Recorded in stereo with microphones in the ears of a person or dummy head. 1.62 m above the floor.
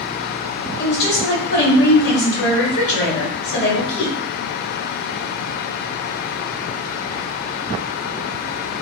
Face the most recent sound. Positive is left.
turn(degrees=60)  # may be behind; listen again after turning